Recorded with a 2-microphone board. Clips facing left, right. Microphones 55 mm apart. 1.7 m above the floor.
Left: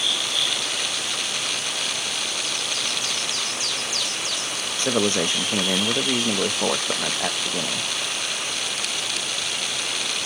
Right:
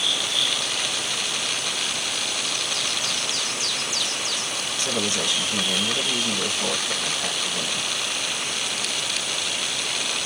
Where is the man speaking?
35° left (ahead or behind), 0.7 m.